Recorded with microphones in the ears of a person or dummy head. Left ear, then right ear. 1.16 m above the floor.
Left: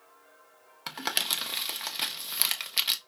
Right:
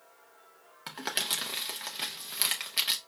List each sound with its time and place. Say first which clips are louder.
0.9 s crumpling: left 2 dB; 20° left (ahead or behind), 1.1 m